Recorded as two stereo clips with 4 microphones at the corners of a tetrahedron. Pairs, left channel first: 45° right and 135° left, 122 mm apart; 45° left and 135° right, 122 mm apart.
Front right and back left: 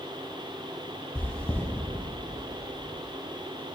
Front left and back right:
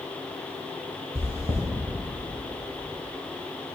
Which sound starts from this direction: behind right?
Chewing, at 1.1 s.